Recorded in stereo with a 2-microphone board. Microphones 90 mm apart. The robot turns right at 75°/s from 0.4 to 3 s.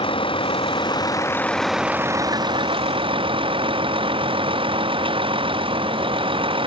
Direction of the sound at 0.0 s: 85° left.